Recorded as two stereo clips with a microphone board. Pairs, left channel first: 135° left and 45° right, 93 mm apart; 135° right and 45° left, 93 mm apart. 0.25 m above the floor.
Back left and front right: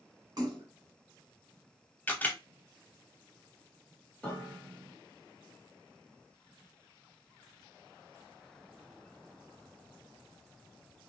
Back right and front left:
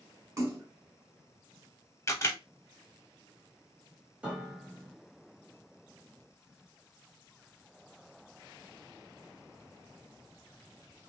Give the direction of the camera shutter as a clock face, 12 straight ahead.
6 o'clock.